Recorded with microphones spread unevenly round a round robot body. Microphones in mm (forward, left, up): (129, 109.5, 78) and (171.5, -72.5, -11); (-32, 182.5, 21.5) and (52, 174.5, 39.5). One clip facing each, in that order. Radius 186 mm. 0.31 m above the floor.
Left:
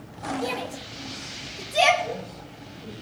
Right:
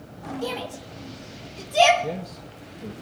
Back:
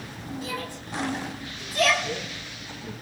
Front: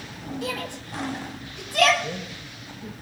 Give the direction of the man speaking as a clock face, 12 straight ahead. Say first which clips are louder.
Right 2 dB, back 1 dB; 2 o'clock.